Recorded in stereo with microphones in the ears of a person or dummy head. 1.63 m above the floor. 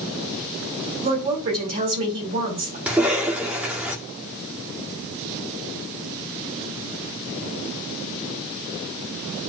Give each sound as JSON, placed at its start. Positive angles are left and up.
{"t": 1.0, "sound": "a woman speaking", "side_deg": -45, "distance_m": 5.0}
{"t": 2.9, "sound": "a cough", "side_deg": -5, "distance_m": 1.9}